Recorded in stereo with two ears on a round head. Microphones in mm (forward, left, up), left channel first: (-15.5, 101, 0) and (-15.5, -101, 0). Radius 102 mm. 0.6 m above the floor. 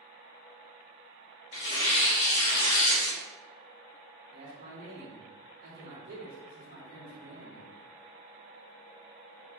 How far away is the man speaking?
About 1.8 m.